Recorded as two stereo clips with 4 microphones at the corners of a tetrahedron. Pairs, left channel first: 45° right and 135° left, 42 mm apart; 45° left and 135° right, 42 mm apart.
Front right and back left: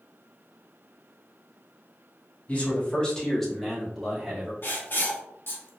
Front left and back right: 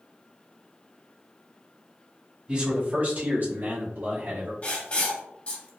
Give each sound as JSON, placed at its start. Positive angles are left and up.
{"t": 2.5, "sound": "a man speaking", "azimuth_deg": -80, "distance_m": 1.5}
{"t": 4.6, "sound": "writing", "azimuth_deg": -10, "distance_m": 1.3}